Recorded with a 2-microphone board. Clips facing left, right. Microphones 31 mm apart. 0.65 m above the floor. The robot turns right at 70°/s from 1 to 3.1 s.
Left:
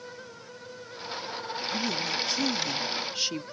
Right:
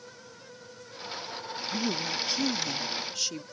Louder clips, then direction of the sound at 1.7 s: Even; 60° right.